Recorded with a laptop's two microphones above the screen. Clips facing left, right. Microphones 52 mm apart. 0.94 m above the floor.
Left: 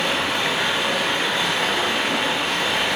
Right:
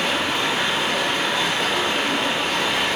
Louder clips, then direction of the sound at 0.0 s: Even; 5° right (ahead or behind).